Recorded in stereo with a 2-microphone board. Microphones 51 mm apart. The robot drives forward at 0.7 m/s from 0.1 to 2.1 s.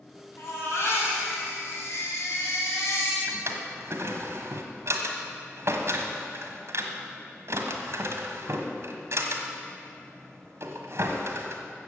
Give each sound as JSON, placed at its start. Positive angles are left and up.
{"t": 0.4, "sound": "a baby crying", "side_deg": 55, "distance_m": 5.0}
{"t": 3.3, "sound": "a drawer", "side_deg": -60, "distance_m": 1.5}